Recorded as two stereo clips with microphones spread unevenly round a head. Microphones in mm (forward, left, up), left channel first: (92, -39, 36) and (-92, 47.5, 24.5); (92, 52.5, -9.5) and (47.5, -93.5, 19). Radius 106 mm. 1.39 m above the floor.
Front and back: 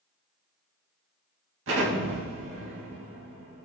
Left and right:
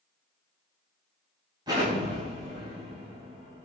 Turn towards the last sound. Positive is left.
turn(degrees=-175)